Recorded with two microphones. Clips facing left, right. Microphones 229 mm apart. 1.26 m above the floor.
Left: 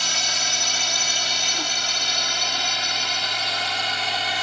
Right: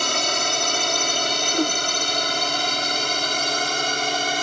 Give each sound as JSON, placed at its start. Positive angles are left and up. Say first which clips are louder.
{"t": 0.0, "sound": "a drone", "louder": "right 8 dB", "side_deg": -60}
{"t": 1.5, "sound": "a whoosh", "louder": "right 14 dB", "side_deg": -55}